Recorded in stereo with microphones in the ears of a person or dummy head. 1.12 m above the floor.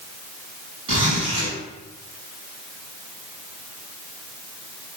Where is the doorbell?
No doorbell in this recording.